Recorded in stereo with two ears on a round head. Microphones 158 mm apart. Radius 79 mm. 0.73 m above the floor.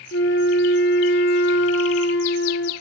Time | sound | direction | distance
0.1 | a flute | 70° left (ahead or behind) | 2.5 m